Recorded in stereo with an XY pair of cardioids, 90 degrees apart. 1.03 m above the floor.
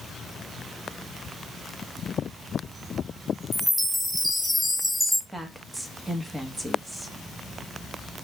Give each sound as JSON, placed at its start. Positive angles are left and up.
{"t": 3.5, "sound": "a chime", "azimuth_deg": -5, "distance_m": 0.9}
{"t": 5.3, "sound": "a woman speaking", "azimuth_deg": -20, "distance_m": 1.2}